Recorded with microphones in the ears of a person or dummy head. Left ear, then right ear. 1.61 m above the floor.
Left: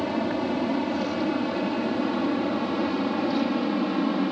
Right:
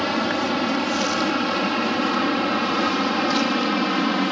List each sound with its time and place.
0.0 s an aircraft: 50° right (ahead or behind)